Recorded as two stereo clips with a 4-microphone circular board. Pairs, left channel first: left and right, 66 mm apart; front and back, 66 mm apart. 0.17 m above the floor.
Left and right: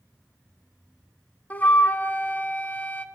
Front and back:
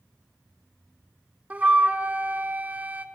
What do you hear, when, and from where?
1.5 s a flute: 130° left, 0.6 m